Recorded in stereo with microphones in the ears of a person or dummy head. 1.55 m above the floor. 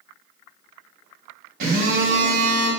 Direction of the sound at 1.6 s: 55° right (ahead or behind).